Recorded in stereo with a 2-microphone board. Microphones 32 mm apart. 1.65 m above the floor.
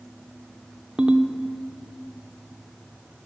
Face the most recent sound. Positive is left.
turn(degrees=-25)  # may be behind; listen again after turning